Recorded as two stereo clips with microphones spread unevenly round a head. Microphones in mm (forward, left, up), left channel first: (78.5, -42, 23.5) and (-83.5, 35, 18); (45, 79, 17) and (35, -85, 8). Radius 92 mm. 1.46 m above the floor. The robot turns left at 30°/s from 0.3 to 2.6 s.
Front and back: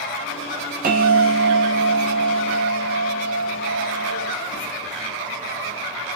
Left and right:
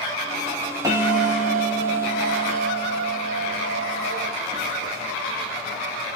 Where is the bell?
165° right, 0.6 m; by 5.8 s 145° left, 0.6 m.